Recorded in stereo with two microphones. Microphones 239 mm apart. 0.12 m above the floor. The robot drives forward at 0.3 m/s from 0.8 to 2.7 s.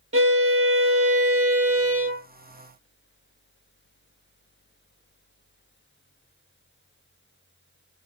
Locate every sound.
0.1 s a violin: 65° right (ahead or behind), 0.7 m